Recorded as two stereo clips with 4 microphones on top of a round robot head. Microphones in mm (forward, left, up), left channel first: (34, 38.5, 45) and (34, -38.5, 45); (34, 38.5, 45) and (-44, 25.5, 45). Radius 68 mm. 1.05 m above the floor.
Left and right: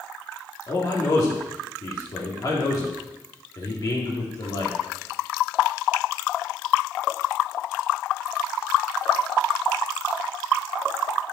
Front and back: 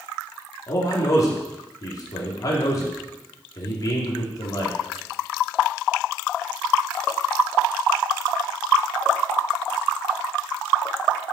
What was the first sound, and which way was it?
A man speaking, 55° left.